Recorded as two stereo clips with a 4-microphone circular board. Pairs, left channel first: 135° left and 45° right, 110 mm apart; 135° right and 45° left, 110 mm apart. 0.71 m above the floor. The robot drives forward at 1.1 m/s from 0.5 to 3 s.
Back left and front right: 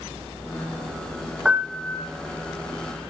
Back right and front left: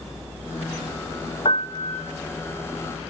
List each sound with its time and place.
1.4 s a piano: 125° right, 1.0 m; by 2.1 s 150° right, 1.5 m